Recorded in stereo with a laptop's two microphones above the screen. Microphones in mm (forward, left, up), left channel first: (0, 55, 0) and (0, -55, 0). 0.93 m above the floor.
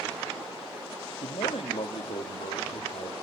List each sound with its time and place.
1.2 s a man speaking: 60° left (ahead or behind), 1.7 m; by 3.1 s 80° left, 2.5 m